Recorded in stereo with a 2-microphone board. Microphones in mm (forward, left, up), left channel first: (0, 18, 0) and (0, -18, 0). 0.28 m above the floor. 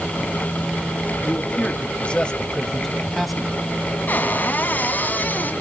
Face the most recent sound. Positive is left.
turn(degrees=55)  # may be behind; listen again after turning